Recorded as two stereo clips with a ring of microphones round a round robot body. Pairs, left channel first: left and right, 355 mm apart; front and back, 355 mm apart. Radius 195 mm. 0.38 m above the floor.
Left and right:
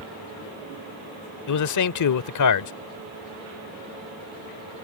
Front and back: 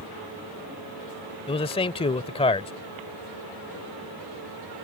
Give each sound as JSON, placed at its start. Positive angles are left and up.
{"t": 1.5, "sound": "a man speaking", "azimuth_deg": 70}